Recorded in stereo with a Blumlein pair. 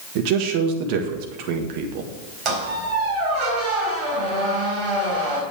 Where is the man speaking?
45° right, 1.7 m.